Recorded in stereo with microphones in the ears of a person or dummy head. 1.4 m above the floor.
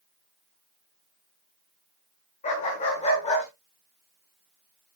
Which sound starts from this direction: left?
A dog barking, at 2.4 s.